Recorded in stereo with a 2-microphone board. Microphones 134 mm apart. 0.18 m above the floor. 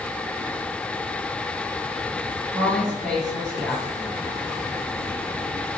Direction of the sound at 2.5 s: 5° left (ahead or behind).